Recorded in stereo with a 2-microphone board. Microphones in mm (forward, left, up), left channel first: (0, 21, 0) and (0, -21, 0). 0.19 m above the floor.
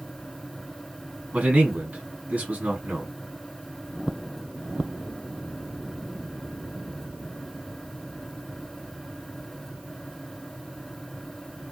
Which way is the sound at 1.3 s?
35° right (ahead or behind).